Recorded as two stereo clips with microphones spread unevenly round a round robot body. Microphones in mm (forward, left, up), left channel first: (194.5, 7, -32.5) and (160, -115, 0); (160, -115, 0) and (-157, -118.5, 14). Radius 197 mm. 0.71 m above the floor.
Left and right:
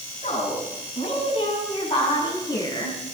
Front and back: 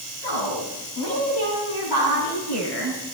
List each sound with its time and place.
0.2 s a woman speaking: 45° left, 8.5 m; by 3.1 s 15° left, 7 m